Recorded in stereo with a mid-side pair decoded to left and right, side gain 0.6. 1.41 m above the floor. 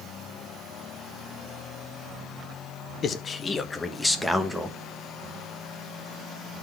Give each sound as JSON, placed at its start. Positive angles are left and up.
{"t": 3.0, "sound": "a man speaking", "azimuth_deg": 40, "distance_m": 1.4}